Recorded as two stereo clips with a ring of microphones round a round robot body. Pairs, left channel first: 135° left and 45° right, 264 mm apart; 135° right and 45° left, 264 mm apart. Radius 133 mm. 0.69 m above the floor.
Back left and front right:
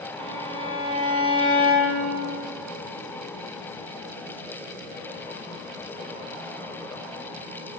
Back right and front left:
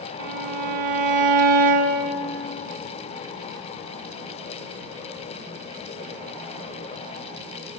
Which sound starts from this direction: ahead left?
A violin, at 0.2 s.